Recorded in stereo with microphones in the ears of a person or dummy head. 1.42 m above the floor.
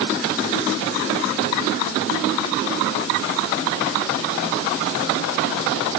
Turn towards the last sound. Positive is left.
No sound to turn to.